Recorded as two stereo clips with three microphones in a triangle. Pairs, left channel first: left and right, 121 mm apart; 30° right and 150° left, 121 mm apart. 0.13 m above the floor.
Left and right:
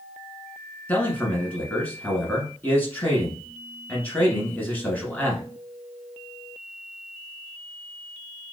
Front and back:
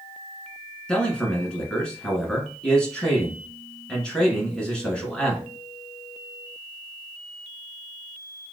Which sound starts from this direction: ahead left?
A man speaking, at 0.9 s.